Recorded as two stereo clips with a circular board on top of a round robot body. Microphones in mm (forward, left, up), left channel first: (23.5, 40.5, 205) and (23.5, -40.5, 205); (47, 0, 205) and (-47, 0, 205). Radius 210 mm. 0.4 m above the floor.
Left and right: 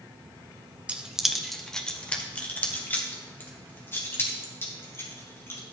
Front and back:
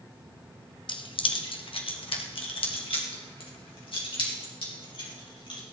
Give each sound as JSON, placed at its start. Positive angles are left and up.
{"t": 0.9, "sound": "keys jangling", "azimuth_deg": -15, "distance_m": 1.3}